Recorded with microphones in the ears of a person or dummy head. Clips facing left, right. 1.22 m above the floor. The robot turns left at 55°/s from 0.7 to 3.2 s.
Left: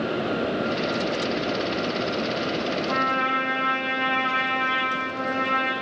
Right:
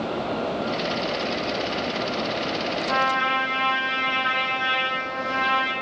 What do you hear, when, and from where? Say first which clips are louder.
2.9 s a trumpet: right 1 dB; 25° right (ahead or behind), 3.5 m; by 5.7 s 40° right (ahead or behind), 3.5 m